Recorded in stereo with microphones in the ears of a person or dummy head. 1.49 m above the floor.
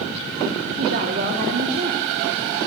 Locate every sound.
0.8 s a woman speaking: 50° right (ahead or behind), 3.5 m